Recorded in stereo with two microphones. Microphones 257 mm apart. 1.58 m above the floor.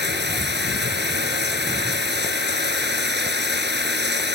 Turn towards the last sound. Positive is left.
turn(degrees=-40)  # may be behind; listen again after turning